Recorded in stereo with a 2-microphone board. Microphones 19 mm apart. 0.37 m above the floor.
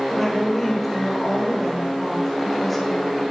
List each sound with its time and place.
0.1 s a woman speaking: 5° left (ahead or behind), 1.3 m